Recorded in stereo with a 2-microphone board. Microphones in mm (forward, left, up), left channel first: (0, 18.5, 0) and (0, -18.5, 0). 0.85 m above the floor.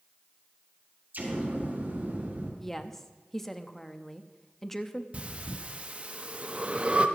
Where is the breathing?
35° right (ahead or behind), 1.0 m.